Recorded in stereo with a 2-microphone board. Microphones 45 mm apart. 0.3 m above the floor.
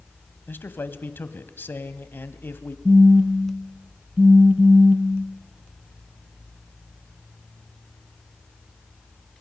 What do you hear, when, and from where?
0.5 s a man speaking: 55° left (ahead or behind), 1.5 m
2.9 s a phone buzzing: 30° right (ahead or behind), 0.8 m